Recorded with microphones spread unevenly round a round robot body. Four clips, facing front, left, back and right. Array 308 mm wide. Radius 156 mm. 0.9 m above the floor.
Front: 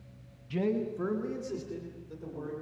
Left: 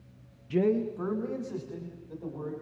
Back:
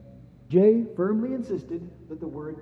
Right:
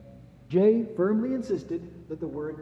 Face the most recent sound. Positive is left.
turn(degrees=-120)